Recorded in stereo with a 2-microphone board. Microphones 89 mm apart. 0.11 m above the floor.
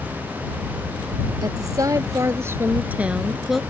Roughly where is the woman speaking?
Right.